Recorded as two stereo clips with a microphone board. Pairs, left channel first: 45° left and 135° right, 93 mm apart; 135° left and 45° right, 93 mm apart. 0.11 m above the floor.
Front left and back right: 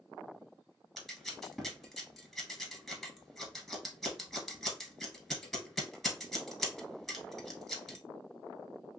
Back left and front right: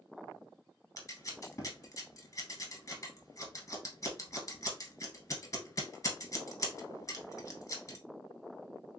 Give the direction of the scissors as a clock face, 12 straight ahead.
7 o'clock.